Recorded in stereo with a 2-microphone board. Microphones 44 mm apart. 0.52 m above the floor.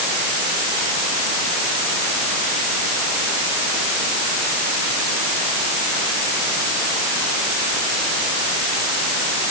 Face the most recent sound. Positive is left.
No sound to turn to.